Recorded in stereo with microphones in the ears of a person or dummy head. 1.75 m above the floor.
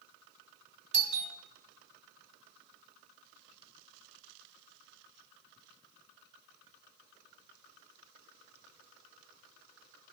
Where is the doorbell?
35° right (ahead or behind), 0.9 m.